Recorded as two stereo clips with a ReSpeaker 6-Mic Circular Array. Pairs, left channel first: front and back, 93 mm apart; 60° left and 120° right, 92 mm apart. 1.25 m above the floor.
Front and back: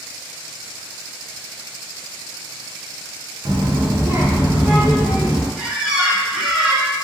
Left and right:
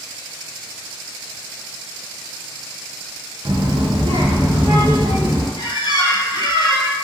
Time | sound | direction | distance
3.5 | a child speaking | 145° right | 0.6 m
5.6 | a squeak | 95° left | 0.7 m